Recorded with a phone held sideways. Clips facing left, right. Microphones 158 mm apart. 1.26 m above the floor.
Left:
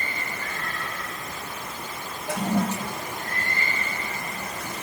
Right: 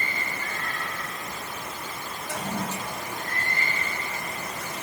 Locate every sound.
2.3 s a toilet flushing: 70° left (ahead or behind), 1.7 m